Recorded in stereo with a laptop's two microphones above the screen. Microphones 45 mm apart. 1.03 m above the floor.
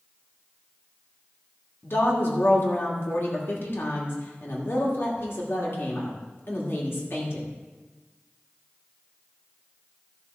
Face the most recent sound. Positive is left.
turn(degrees=55)  # may be behind; listen again after turning